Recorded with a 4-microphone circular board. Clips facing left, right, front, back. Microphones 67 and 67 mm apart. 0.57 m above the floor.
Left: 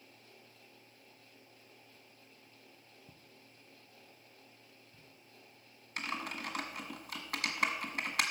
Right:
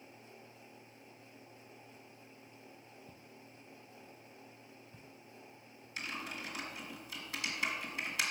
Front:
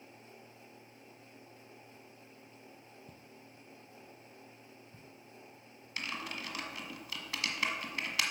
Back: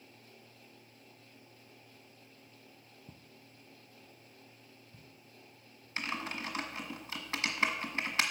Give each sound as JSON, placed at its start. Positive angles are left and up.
{"t": 3.1, "sound": "footsteps", "azimuth_deg": 160, "distance_m": 0.7}
{"t": 6.0, "sound": "typing on a keyboard", "azimuth_deg": 120, "distance_m": 1.6}